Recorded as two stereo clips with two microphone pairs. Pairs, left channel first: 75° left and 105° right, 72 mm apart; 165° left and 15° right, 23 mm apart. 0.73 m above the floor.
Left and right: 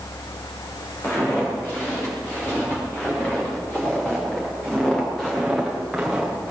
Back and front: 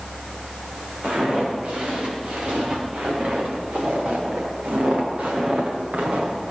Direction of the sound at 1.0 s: 20° left.